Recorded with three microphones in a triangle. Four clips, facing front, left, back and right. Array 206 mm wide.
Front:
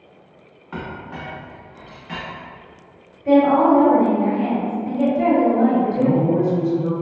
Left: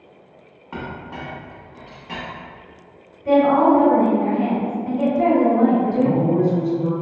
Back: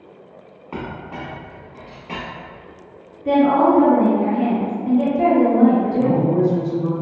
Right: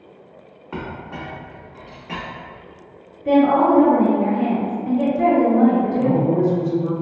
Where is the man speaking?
175° right, 1.4 m.